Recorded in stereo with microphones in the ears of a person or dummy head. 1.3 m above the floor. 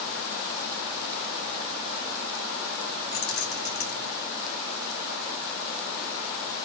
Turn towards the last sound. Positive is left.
turn(degrees=75)  # may be behind; listen again after turning